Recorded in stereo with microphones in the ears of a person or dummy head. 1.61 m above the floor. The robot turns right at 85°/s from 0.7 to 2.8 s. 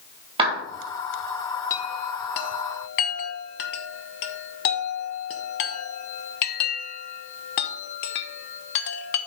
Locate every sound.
0.4 s a clap: 30° right (ahead or behind), 2.5 m
1.7 s a chime: 15° left (ahead or behind), 1.0 m; by 9.2 s 55° left (ahead or behind), 1.0 m